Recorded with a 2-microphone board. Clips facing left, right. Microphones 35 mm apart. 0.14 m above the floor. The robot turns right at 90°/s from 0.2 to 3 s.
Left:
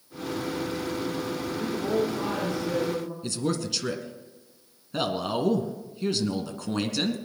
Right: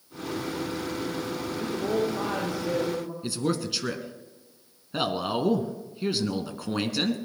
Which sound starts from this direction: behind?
A woman speaking, at 1.6 s.